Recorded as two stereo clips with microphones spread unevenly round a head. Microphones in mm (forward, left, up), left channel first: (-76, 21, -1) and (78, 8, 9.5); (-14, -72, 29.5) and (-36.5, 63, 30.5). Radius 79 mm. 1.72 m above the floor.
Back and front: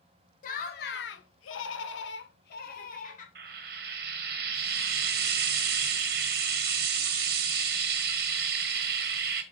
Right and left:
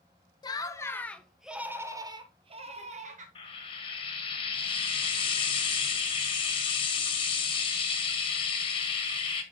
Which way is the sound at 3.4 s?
25° right.